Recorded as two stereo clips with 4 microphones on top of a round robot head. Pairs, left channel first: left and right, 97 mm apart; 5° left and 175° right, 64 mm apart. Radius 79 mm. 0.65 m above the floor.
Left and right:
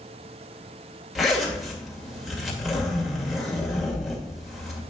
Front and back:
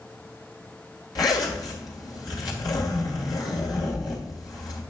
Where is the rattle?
I don't hear a rattle.